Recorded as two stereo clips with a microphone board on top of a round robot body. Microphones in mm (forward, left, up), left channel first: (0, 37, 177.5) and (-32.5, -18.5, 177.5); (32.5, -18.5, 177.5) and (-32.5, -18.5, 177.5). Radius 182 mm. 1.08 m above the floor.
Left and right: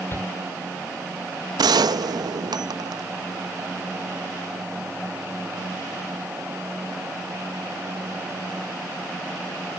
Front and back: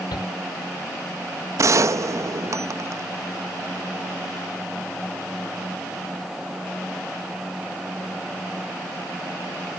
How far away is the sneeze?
I don't hear a sneeze.